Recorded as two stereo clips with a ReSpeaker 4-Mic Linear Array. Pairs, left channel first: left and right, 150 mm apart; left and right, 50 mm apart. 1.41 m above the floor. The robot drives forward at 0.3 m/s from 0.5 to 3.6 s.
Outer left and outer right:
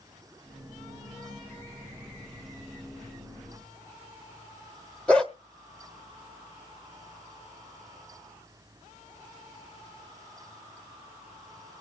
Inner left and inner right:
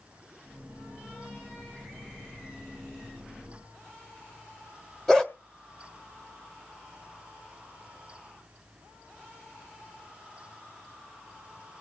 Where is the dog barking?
5° left (ahead or behind), 1.2 m.